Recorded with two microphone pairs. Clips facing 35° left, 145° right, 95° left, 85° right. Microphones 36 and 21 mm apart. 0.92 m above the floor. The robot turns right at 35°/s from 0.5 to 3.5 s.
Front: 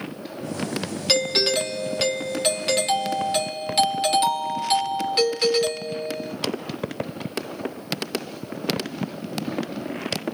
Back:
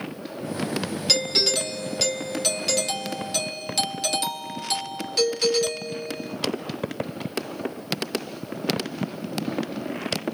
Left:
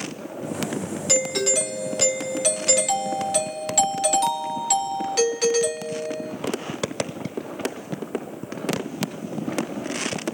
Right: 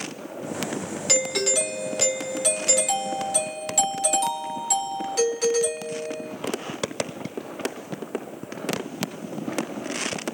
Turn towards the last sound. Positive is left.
turn(degrees=65)